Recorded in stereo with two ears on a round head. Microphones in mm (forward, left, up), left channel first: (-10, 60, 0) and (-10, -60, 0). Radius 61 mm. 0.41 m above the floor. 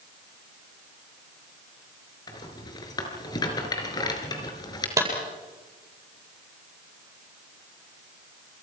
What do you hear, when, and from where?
2.3 s a rattle: 30° left (ahead or behind), 4.5 m
5.0 s a clap: 20° right (ahead or behind), 8.5 m